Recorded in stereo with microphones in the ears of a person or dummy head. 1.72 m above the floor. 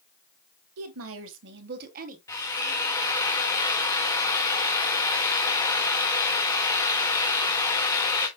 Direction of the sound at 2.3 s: 15° left (ahead or behind).